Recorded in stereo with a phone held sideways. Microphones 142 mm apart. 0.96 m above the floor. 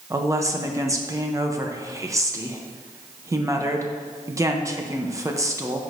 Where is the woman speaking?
20° right (ahead or behind), 0.9 m.